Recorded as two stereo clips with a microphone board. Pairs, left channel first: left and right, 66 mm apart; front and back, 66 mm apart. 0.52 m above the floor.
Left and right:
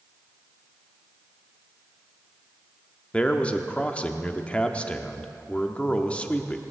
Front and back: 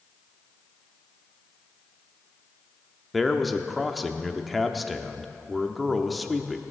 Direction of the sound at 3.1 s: 90° left.